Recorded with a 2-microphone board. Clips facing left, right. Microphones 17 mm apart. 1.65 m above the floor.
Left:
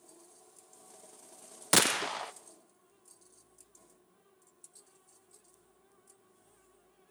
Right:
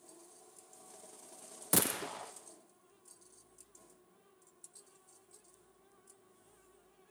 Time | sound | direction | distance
1.7 | a gunshot | 45° left (ahead or behind) | 0.5 m